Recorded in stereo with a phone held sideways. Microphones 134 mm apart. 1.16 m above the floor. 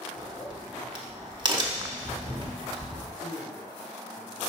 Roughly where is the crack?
Right.